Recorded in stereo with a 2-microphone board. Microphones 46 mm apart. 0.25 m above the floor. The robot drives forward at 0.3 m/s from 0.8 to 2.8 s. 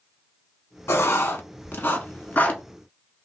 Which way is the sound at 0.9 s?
70° left (ahead or behind).